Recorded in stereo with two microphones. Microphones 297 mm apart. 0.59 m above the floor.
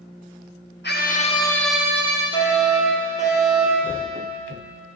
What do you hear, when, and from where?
0.8 s a scream: 35° left (ahead or behind), 1.4 m; by 2.2 s 25° right (ahead or behind), 1.2 m
2.3 s a fire alarm: 25° right (ahead or behind), 3.5 m